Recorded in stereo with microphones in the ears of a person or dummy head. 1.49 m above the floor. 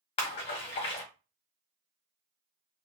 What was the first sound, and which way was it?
A splash, 40° left (ahead or behind).